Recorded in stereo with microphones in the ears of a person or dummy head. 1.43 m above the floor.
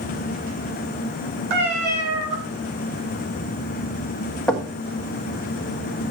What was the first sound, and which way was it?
A cat meowing, 60° right (ahead or behind).